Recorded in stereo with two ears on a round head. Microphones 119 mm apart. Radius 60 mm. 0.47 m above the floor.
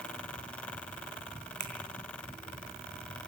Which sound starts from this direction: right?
A finger snap, at 1.6 s.